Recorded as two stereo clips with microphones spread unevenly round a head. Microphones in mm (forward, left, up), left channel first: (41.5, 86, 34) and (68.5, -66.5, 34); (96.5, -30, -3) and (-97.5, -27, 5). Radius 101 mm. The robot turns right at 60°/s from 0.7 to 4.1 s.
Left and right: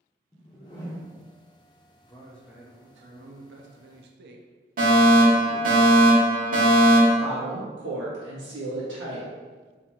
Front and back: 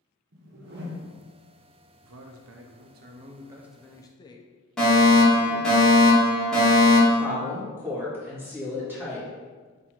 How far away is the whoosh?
About 0.7 m.